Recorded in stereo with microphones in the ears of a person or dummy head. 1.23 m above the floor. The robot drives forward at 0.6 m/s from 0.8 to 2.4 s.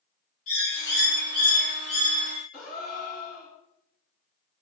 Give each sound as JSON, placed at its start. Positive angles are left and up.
{"t": 0.5, "sound": "a bird", "side_deg": 70, "distance_m": 1.0}
{"t": 2.5, "sound": "a gasp", "side_deg": 40, "distance_m": 1.6}